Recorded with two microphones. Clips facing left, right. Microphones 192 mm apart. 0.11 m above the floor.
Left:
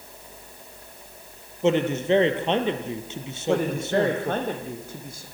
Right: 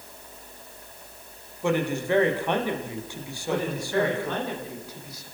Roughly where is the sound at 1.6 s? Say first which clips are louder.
Left 4 dB; left.